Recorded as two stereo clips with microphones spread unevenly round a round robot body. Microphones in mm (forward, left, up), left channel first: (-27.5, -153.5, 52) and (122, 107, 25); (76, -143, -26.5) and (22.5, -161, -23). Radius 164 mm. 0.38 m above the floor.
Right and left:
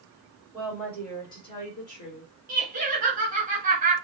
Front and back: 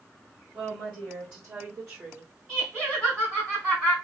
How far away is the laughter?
About 1.3 m.